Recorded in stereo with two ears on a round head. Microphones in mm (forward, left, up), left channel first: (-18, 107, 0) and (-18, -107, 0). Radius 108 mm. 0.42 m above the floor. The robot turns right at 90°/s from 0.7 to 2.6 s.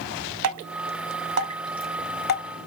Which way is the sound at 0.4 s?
75° right (ahead or behind).